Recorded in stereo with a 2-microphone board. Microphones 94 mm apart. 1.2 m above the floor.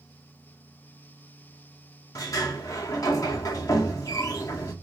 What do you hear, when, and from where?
2.1 s a sliding door: 40° left (ahead or behind), 0.6 m